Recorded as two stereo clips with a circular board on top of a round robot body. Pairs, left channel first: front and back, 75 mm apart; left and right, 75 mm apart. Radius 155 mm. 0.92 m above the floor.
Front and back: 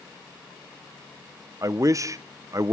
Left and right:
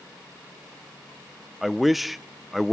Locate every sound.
1.6 s a man speaking: 175° right, 0.6 m